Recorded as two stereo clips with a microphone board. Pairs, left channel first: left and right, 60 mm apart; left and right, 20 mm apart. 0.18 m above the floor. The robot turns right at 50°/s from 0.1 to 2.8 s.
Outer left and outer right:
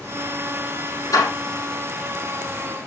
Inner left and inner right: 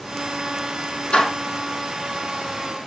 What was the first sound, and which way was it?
A door slam, 70° left (ahead or behind).